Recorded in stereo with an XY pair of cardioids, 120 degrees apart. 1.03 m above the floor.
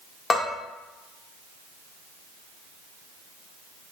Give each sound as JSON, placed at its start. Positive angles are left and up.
{"t": 0.3, "sound": "a bell", "azimuth_deg": 30, "distance_m": 0.8}